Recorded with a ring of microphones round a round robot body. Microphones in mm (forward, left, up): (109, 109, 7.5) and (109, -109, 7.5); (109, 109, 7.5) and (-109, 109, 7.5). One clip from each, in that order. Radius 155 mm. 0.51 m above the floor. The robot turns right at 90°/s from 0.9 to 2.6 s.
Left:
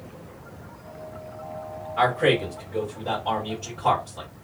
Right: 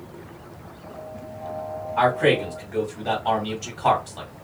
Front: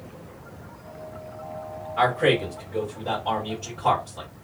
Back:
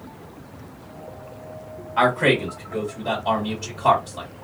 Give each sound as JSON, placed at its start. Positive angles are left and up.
{"t": 2.0, "sound": "a man speaking", "azimuth_deg": -170, "distance_m": 1.5}